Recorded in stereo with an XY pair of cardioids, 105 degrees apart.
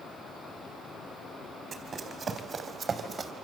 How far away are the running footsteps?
About 4.5 m.